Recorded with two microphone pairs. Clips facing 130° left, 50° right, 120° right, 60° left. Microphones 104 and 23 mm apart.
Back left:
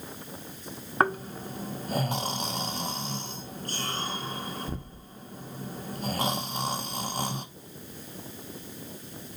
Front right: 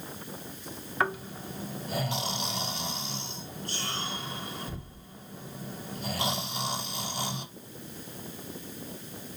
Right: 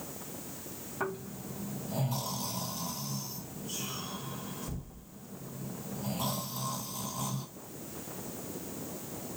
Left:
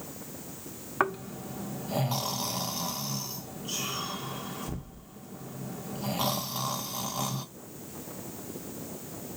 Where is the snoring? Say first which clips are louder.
Back left 4 dB, left 8 dB; 85° left, 0.8 m.